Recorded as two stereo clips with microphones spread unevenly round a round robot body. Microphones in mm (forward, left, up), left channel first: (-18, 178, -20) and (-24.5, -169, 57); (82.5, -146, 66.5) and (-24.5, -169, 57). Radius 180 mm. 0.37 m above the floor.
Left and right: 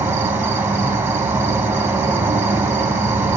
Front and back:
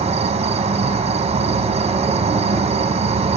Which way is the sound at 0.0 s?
Straight behind.